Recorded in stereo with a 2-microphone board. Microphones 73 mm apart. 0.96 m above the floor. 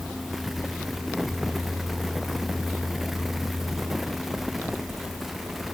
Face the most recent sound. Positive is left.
No sound to turn to.